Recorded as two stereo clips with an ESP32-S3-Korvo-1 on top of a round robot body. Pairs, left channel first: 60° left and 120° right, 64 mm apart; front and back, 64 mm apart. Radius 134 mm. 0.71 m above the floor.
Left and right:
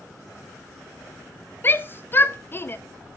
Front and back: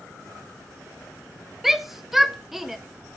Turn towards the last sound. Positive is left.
turn(degrees=95)